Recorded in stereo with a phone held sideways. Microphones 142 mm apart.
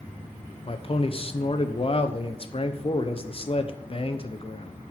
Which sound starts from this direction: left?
A man speaking, at 0.7 s.